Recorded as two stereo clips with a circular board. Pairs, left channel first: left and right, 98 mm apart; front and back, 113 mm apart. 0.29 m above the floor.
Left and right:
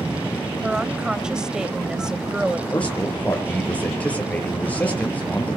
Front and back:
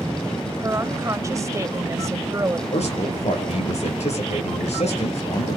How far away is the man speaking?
About 5.5 m.